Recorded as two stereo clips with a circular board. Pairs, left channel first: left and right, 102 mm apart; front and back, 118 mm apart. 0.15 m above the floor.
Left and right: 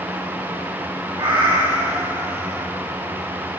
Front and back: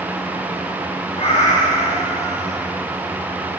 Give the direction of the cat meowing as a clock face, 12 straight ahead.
1 o'clock.